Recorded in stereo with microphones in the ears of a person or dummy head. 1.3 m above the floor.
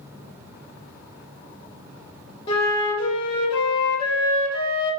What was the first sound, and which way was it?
A flute, 25° left (ahead or behind).